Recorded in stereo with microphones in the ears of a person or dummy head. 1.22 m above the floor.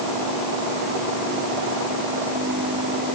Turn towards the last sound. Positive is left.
No sound to turn to.